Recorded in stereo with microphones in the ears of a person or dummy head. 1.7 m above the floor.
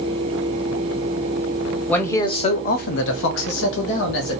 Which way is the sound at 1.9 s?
10° left (ahead or behind).